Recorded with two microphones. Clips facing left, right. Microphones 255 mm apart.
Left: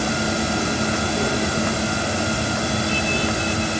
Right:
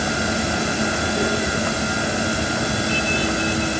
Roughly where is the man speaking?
No man speaking in this recording.